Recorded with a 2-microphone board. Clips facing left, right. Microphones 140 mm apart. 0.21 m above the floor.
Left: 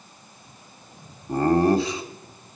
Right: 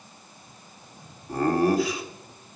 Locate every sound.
1.3 s laughter: 30° left (ahead or behind), 1.4 m